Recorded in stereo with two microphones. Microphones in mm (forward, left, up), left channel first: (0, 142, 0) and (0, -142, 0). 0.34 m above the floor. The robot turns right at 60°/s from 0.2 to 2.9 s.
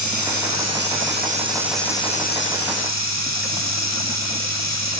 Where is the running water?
95° right, 4.5 m; by 5.0 s 70° left, 4.5 m.